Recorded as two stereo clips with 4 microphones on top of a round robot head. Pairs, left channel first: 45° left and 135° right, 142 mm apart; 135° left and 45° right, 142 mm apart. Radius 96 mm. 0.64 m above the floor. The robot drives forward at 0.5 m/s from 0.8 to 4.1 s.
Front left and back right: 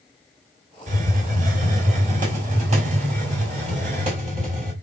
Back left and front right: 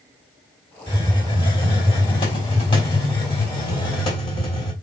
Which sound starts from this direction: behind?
A hiss, at 0.9 s.